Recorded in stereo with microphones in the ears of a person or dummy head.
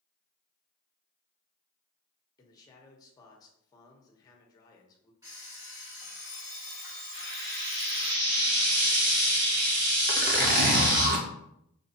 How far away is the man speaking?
About 1.1 m.